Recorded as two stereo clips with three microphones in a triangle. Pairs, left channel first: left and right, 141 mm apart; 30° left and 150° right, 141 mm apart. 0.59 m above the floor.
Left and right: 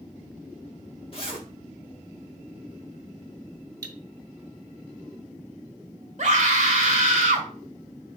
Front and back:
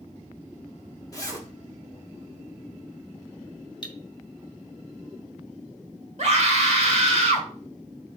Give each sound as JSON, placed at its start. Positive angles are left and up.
{"t": 1.1, "sound": "a zipper", "azimuth_deg": 80, "distance_m": 1.0}
{"t": 3.8, "sound": "cutlery clinking", "azimuth_deg": -25, "distance_m": 0.8}
{"t": 6.2, "sound": "a scream", "azimuth_deg": -120, "distance_m": 1.8}